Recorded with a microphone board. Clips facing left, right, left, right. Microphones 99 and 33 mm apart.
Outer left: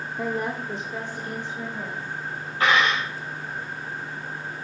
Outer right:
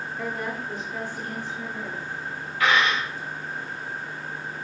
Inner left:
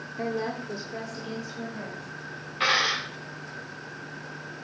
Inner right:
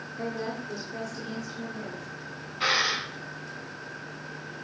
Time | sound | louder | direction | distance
0.2 | a woman speaking | outer left 4 dB, inner left 3 dB | 25° left (ahead or behind) | 0.9 m
2.6 | a dropped coin | outer left 1 dB, inner left 2 dB | 35° left (ahead or behind) | 4 m